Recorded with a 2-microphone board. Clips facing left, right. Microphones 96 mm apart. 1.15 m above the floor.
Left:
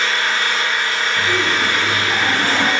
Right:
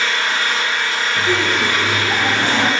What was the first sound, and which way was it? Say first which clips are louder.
An engine running: even; 30° left (ahead or behind).